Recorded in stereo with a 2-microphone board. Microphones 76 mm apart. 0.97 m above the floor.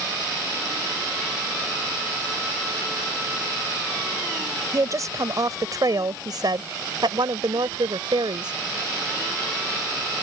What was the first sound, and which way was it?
A woman speaking, 45° right (ahead or behind).